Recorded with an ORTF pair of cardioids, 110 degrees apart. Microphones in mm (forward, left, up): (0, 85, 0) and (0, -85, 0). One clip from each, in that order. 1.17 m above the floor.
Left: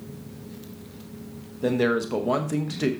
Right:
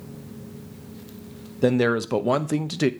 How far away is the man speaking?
About 0.9 m.